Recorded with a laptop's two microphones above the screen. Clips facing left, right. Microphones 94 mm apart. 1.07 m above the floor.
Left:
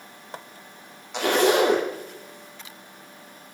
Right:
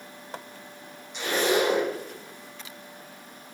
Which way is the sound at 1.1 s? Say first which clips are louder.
Left 5 dB; 80° left.